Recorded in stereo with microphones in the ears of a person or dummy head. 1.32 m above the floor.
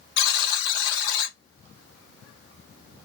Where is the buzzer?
70° left (ahead or behind), 2.5 m.